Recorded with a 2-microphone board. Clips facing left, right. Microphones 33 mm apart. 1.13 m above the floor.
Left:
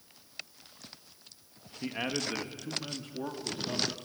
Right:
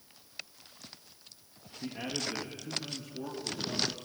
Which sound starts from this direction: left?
A man speaking, at 1.8 s.